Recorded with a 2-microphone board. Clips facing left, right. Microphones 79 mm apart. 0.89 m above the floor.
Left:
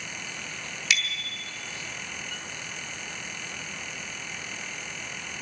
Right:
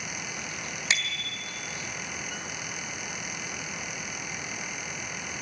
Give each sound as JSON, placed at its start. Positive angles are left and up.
{"t": 0.9, "sound": "a bicycle bell", "side_deg": -30, "distance_m": 3.0}